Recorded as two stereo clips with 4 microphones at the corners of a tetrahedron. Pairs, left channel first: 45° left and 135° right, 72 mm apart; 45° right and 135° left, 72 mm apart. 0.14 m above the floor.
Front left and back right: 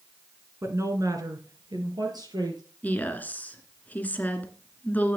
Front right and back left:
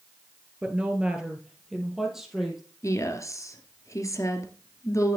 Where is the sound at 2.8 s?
15° right, 2.0 m.